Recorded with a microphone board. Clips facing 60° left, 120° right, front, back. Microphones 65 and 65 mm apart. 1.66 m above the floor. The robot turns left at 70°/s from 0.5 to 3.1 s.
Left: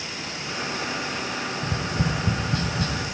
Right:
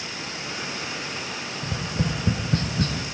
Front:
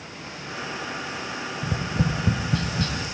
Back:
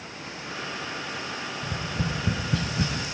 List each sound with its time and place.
1.6 s tapping: 25° right, 0.5 m; by 3.0 s 125° right, 0.5 m